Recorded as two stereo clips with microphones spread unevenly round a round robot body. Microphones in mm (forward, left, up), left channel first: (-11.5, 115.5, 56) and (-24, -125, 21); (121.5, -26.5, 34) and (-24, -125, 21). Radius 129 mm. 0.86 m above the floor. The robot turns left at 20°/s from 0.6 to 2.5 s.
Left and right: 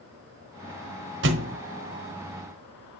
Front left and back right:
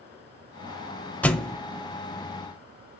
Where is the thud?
45° right, 1.1 m; by 1.6 s 50° right, 1.1 m.